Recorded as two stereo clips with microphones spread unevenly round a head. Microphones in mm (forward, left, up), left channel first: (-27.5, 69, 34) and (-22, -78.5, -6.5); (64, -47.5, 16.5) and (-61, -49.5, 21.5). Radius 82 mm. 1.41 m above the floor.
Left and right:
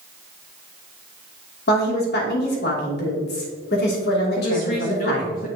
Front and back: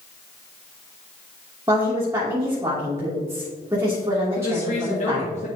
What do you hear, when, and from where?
1.7 s a woman speaking: 105° left, 2.5 m
4.4 s a woman speaking: 45° left, 1.0 m